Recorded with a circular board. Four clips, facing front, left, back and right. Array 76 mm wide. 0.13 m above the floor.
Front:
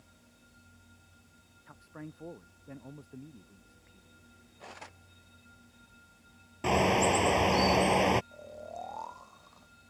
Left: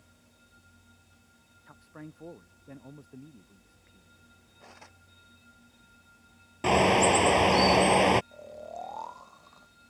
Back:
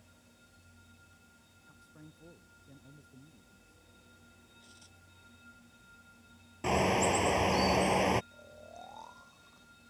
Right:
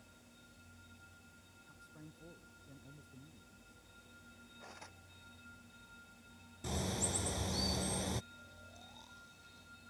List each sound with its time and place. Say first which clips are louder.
1.7 s a man speaking: left 11 dB, front 10 dB; 45° left
4.6 s cutlery clinking: left 3 dB, front 17 dB; 10° left
6.6 s a bird: left 19 dB, front 3 dB; 80° left
8.3 s snoring: left 16 dB, front 8 dB; 60° left